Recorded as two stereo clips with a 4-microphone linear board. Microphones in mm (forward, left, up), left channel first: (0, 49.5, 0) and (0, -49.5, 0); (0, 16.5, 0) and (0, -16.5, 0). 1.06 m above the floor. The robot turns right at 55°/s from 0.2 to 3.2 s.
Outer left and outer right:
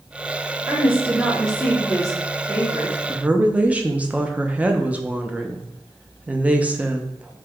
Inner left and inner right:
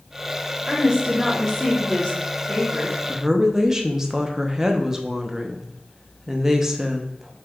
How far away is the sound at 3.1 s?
About 0.5 m.